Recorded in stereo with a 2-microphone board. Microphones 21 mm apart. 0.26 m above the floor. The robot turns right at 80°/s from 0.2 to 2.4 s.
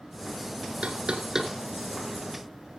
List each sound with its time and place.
0.8 s knocking: 60° right (ahead or behind), 2.5 m; by 2.8 s 55° left (ahead or behind), 2.5 m